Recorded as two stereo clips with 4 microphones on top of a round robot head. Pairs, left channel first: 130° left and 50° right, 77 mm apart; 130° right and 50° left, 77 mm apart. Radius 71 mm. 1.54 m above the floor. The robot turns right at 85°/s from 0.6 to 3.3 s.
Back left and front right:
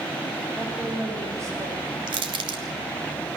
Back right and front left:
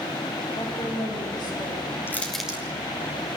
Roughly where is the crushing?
Ahead right.